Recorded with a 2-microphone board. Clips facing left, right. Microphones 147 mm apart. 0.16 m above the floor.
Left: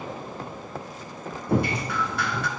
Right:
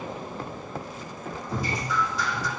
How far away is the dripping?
About 2 m.